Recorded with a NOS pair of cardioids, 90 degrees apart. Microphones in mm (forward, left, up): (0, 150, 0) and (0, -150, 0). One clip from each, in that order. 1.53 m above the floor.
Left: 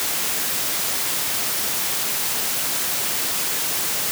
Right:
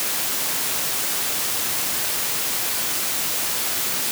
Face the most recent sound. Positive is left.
No sound to turn to.